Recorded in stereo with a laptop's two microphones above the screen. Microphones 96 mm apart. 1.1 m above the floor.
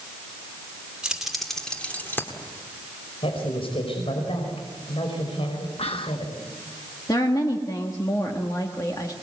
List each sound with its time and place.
1.0 s keys jangling: 10° right (ahead or behind), 1.9 m; by 2.3 s 25° left (ahead or behind), 1.9 m
3.2 s a woman speaking: 75° left (ahead or behind), 5 m
5.8 s whispering: 80° left, 0.8 m
7.1 s a woman speaking: 40° left (ahead or behind), 1.4 m